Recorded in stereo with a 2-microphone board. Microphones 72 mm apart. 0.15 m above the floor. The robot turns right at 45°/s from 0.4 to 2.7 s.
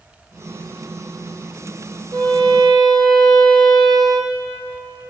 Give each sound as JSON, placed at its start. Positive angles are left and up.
{"t": 2.1, "sound": "a violin", "side_deg": -60, "distance_m": 1.2}